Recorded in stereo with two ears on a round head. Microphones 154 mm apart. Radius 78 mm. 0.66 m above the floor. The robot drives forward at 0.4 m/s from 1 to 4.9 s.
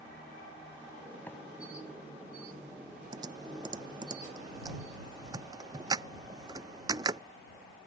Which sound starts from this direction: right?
Typing on a keyboard, at 3.1 s.